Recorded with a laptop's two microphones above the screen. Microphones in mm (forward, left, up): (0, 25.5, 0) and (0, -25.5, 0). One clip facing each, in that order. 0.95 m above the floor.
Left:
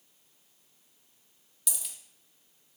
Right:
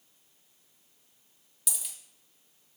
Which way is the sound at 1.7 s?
Centre (ahead or behind).